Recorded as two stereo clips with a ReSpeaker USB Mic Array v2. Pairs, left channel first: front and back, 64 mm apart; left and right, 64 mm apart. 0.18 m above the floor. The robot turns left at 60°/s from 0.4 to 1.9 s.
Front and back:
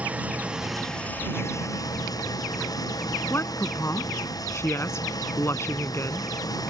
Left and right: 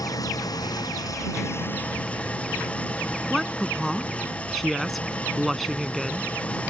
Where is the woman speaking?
Straight ahead.